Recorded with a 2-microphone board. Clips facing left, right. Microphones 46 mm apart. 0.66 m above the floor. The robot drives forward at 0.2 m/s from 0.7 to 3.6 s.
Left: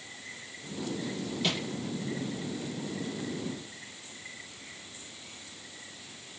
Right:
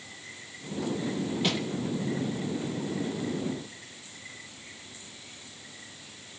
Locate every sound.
1.4 s crushing: 10° right (ahead or behind), 7 m